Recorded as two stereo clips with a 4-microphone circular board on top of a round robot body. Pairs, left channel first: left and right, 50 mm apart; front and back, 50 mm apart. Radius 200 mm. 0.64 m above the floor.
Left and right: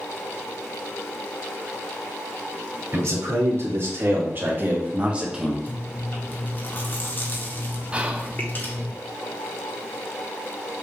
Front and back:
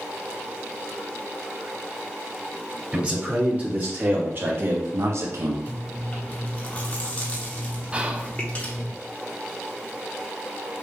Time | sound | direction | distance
2.9 | a man speaking | 120° right | 2.5 m
5.7 | chewing | 55° left | 1.6 m
7.9 | whispering | 135° right | 1.1 m